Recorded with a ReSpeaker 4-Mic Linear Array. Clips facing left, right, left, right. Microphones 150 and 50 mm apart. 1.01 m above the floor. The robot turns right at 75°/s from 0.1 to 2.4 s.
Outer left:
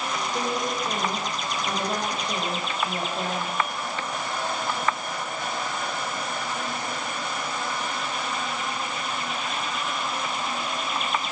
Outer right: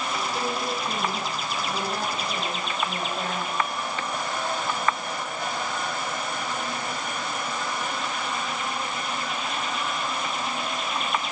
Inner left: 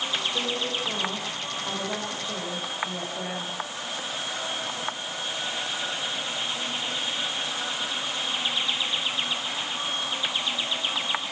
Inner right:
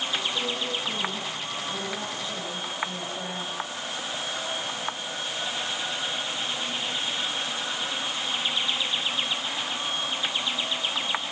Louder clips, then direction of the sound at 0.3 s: Outer left 4 dB, inner left 1 dB; 10° left.